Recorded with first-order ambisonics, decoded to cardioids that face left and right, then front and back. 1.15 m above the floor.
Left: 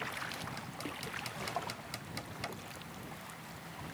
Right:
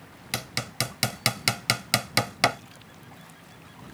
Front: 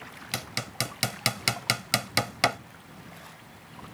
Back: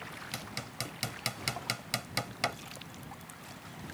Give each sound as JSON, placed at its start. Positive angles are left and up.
{"t": 0.3, "sound": "hammering", "azimuth_deg": -60}